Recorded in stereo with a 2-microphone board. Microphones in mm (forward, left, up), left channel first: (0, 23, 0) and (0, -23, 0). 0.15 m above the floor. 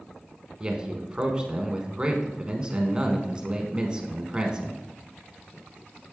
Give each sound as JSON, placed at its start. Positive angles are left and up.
{"t": 0.6, "sound": "a man speaking", "side_deg": -20, "distance_m": 1.2}